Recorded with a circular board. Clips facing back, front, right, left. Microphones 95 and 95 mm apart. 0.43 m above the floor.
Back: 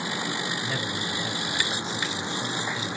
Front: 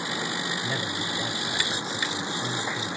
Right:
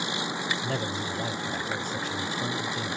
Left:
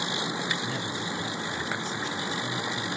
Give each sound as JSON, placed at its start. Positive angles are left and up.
{"t": 0.6, "sound": "a man speaking", "azimuth_deg": -85, "distance_m": 2.0}